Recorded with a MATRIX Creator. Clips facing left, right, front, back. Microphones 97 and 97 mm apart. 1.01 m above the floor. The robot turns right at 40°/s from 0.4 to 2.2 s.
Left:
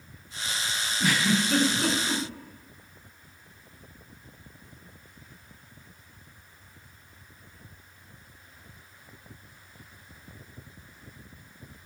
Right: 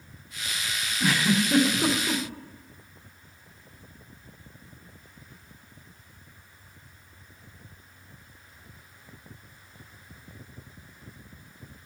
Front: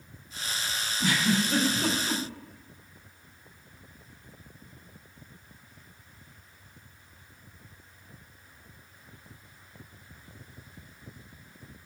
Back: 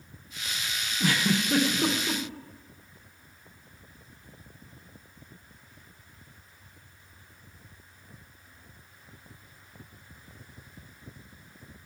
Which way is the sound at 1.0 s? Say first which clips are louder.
Right 1 dB, even; 175° left.